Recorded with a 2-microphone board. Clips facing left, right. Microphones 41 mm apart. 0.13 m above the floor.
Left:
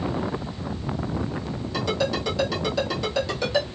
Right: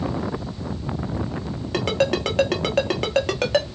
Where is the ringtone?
55° right (ahead or behind), 1.0 m.